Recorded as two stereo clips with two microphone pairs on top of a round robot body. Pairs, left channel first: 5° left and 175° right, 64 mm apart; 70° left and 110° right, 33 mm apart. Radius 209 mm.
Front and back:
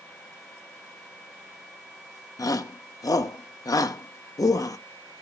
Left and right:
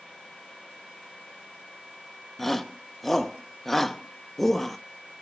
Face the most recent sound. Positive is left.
turn(degrees=-10)